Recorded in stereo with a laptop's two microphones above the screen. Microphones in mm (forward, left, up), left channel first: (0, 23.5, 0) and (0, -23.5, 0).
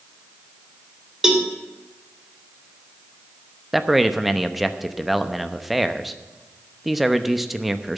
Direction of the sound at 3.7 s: Centre (ahead or behind).